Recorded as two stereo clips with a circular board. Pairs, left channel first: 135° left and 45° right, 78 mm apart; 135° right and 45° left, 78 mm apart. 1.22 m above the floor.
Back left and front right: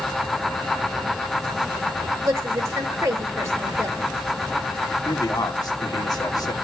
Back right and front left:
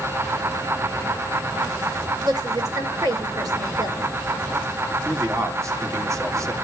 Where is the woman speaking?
10° left, 4.5 m.